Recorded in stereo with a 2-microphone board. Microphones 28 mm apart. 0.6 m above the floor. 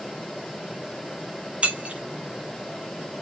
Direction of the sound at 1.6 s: 50° right (ahead or behind).